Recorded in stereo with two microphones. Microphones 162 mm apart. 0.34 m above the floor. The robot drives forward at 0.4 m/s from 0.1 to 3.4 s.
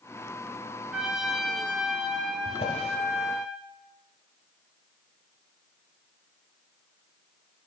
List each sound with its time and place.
0.9 s a trumpet: 5° right (ahead or behind), 0.8 m; by 3.5 s centre (ahead or behind), 1.5 m
2.5 s a drawer: 45° left (ahead or behind), 0.9 m; by 3.0 s 40° left (ahead or behind), 1.0 m